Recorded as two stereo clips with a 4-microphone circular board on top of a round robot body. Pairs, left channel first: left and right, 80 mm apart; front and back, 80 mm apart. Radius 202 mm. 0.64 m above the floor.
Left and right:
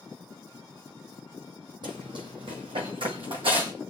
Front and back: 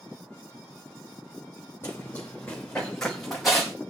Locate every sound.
1.8 s running footsteps: 65° right, 1.3 m; by 3.7 s 90° right, 1.9 m